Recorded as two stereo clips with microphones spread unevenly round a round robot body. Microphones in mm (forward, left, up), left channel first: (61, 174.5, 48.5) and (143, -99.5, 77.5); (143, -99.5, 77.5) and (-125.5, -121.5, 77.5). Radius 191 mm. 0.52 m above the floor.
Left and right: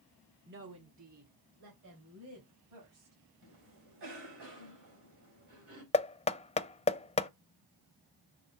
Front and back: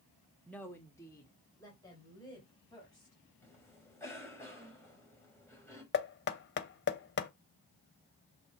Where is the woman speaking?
75° right, 1.0 m; by 3.1 s 70° right, 5 m.